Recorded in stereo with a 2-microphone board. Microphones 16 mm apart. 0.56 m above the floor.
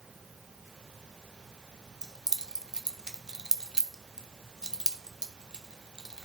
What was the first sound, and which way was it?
Keys jangling, 55° right (ahead or behind).